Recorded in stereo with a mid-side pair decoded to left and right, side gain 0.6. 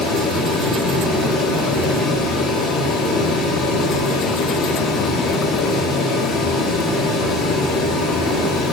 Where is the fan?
55° left, 0.8 m.